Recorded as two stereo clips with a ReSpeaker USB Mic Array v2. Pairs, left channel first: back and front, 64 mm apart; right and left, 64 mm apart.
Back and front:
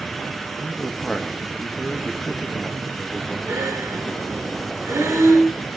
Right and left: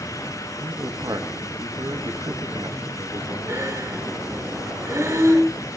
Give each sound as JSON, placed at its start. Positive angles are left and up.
{"t": 0.6, "sound": "a man speaking", "azimuth_deg": 95, "distance_m": 1.7}
{"t": 3.5, "sound": "breathing", "azimuth_deg": 45, "distance_m": 4.5}